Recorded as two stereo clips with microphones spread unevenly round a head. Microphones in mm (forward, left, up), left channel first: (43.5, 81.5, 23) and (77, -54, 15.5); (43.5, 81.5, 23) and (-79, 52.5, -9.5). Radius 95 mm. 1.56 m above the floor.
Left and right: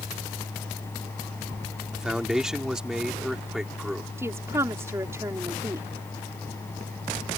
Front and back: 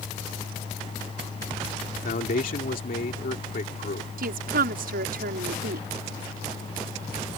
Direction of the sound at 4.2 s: 155° right.